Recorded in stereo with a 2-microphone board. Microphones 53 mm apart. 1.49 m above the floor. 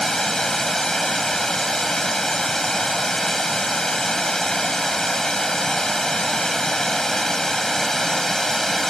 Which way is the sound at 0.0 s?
10° left (ahead or behind).